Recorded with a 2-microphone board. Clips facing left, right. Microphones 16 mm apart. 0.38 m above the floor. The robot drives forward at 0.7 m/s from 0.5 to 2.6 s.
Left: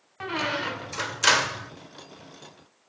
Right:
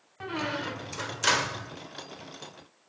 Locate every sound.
0.2 s a squeak: 25° left (ahead or behind), 0.6 m; by 1.7 s 20° left (ahead or behind), 0.8 m